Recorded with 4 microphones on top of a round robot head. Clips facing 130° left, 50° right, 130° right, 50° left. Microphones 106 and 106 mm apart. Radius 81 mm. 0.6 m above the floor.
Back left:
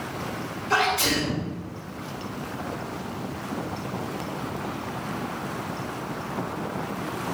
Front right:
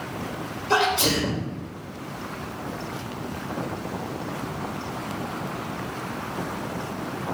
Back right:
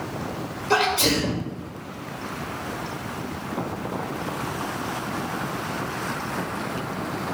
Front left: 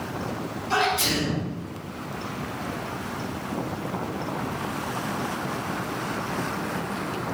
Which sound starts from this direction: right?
A sneeze, at 0.7 s.